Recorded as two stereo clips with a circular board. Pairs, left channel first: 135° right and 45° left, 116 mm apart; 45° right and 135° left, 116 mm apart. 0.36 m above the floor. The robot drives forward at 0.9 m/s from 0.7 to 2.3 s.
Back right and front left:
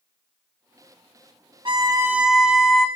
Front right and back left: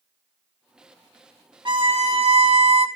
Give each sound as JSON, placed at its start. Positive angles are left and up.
{"t": 1.6, "sound": "a violin", "azimuth_deg": 90, "distance_m": 0.7}